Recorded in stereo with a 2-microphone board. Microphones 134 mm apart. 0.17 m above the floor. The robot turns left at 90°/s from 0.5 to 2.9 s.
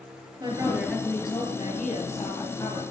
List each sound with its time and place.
0.4 s a woman speaking: 145° right, 4 m; by 2.8 s 10° left, 4 m